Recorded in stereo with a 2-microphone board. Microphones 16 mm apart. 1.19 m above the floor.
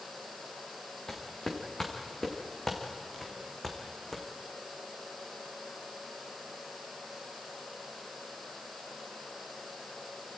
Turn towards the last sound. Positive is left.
turn(degrees=5)  # may be behind; listen again after turning